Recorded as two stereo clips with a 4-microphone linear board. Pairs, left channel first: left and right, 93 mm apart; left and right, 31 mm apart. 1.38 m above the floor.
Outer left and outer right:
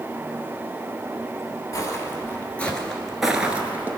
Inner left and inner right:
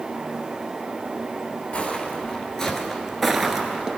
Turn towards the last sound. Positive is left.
turn(degrees=-20)  # may be behind; listen again after turning